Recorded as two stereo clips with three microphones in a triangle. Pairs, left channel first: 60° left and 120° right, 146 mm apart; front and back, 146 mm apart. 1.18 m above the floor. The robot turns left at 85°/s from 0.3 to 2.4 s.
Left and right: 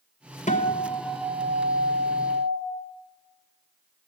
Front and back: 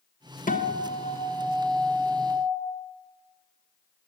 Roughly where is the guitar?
Ahead left.